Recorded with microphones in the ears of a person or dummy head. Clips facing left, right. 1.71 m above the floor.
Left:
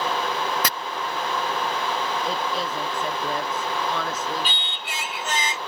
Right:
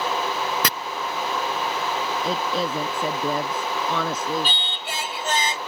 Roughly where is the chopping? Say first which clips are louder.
Right 1 dB; right.